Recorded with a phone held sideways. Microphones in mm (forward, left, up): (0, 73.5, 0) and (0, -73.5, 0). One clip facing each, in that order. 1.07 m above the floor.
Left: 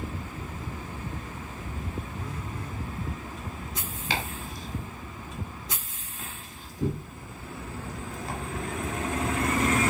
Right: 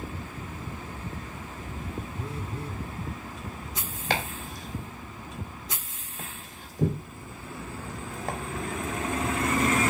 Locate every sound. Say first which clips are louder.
2.2 s a phone buzzing: right 1 dB; 30° right (ahead or behind), 0.8 m
4.1 s chopping: right 3 dB; 50° right (ahead or behind), 2.5 m